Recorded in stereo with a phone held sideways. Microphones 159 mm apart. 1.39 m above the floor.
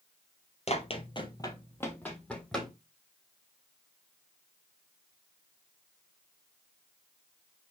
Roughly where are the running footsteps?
Left.